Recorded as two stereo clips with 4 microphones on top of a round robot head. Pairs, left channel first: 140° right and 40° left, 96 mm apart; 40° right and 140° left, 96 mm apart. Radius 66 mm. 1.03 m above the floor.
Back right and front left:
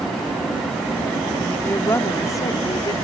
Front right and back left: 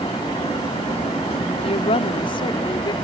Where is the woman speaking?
70° right; by 2.9 s 90° right.